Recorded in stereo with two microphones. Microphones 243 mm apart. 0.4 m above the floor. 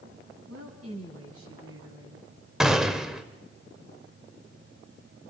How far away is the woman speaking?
About 3.5 m.